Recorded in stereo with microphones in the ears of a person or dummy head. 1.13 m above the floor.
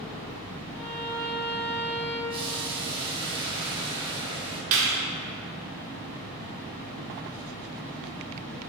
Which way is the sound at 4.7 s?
75° right (ahead or behind).